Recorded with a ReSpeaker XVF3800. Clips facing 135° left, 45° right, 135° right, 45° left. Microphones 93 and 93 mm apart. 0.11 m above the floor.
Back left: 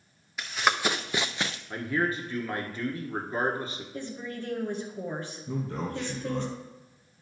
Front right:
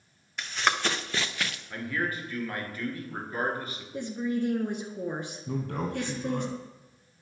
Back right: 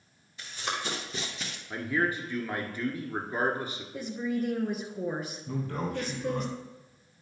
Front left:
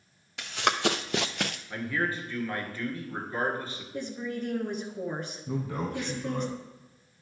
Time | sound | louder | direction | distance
0.4 | running footsteps | back left 1 dB, front left 8 dB | 50° left | 1.1 m
1.7 | a man speaking | back left 4 dB, back right 3 dB | 170° left | 1.4 m
3.9 | a woman speaking | front right 9 dB, back right 3 dB | 60° right | 1.2 m
5.5 | a man speaking | front right 1 dB, front left 1 dB | 35° right | 3 m